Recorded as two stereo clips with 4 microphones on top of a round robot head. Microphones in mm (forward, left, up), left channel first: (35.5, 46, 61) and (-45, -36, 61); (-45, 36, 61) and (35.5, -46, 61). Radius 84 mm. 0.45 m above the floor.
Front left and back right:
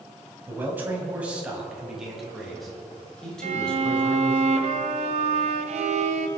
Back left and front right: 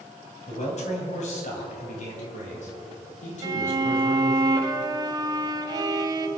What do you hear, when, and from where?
0.5 s a man speaking: 155° left, 3 m; by 4.4 s 125° left, 4 m
3.4 s a violin: 105° right, 1.0 m